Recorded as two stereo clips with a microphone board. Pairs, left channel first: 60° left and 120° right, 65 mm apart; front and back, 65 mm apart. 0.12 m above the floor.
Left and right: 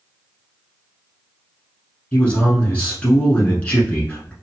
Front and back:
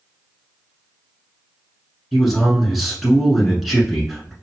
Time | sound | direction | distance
2.1 | a man speaking | 90° left | 1.1 m